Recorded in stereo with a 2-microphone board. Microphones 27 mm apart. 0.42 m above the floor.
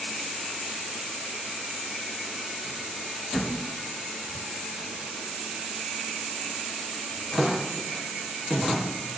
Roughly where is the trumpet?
I don't hear a trumpet.